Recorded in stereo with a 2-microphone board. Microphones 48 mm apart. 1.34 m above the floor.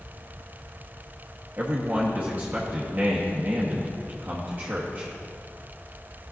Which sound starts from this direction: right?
A man speaking, at 1.6 s.